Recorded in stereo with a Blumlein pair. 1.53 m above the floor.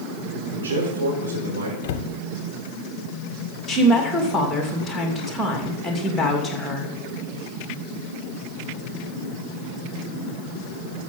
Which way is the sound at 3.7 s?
5° left.